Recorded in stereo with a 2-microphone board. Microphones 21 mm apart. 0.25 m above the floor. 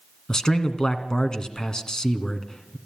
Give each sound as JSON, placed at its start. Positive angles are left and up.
{"t": 0.3, "sound": "a man speaking", "side_deg": 30, "distance_m": 2.5}